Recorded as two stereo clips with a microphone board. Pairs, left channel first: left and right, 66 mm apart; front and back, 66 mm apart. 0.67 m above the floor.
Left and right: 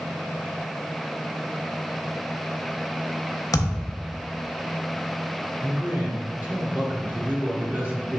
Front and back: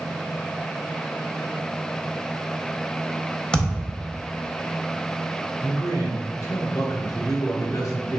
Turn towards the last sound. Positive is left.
turn(degrees=-25)